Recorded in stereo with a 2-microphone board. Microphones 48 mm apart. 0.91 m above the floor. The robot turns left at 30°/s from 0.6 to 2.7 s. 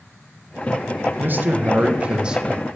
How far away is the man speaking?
About 1.3 m.